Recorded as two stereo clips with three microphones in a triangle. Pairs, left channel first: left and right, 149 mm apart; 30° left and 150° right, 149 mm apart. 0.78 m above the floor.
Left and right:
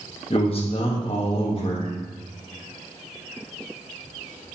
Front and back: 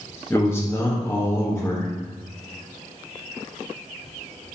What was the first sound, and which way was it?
A man speaking, 95° left.